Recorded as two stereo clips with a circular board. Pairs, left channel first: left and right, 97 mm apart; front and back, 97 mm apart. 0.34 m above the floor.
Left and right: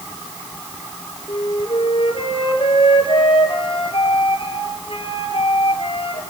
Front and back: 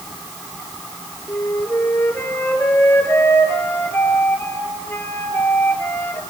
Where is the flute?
70° left, 3 m.